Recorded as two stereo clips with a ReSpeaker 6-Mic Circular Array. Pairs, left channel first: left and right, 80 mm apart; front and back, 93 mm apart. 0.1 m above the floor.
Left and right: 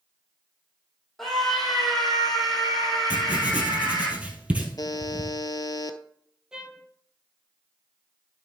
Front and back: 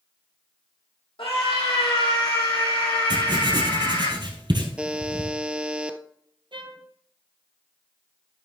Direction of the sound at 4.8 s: 105° left.